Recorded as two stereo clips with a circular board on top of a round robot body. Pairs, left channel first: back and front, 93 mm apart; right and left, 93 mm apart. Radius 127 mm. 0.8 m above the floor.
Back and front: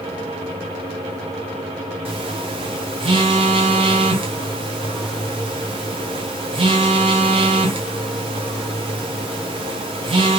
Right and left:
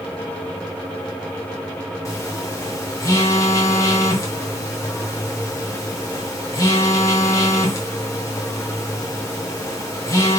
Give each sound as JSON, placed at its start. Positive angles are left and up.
{"t": 2.0, "sound": "a phone buzzing", "azimuth_deg": -30, "distance_m": 0.8}